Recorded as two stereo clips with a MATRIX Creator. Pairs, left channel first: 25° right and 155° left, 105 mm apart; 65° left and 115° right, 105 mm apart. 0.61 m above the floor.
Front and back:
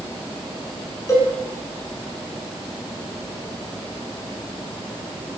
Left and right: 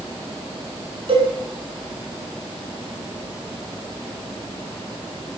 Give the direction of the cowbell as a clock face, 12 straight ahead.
3 o'clock.